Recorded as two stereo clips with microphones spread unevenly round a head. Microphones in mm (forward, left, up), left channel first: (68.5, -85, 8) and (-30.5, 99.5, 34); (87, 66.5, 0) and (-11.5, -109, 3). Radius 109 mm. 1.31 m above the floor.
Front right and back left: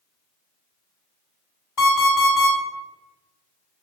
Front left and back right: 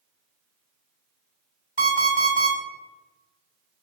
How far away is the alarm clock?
About 2.0 m.